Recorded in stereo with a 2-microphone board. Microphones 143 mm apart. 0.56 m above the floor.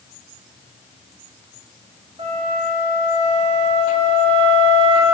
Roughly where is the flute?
Right.